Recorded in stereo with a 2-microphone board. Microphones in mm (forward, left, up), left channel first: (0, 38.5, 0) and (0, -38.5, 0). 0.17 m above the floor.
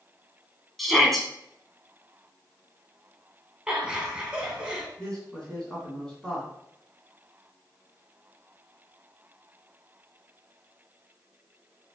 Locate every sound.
0.8 s a shout: centre (ahead or behind), 1.3 m
3.7 s laughter: 10° right (ahead or behind), 1.4 m
5.0 s a man speaking: 10° left (ahead or behind), 1.8 m